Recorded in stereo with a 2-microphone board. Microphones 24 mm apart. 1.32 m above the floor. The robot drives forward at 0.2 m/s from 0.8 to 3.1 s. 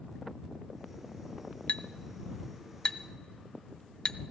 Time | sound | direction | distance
1.7 | a clink | 45° left (ahead or behind) | 0.5 m